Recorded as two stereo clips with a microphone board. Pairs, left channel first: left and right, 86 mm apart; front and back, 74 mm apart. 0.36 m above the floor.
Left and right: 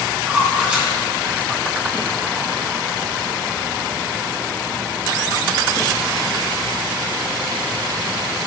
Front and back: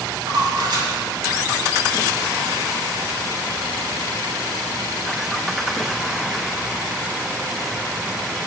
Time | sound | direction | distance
0.3 | a splash | 165° right | 4.5 m